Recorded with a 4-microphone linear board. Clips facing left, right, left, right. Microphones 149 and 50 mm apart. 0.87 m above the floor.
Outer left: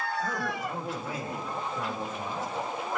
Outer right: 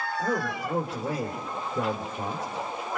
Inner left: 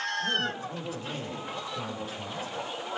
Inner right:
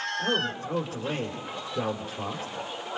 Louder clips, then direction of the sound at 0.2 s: Outer right 3 dB, inner right 2 dB; 70° right (ahead or behind).